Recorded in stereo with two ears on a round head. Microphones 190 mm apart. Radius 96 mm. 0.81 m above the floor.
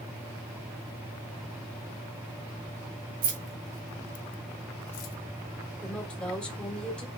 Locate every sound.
3.2 s keys jangling: 40° right (ahead or behind), 1.1 m; by 5.1 s 90° left, 1.3 m
5.8 s a woman speaking: 5° left (ahead or behind), 1.7 m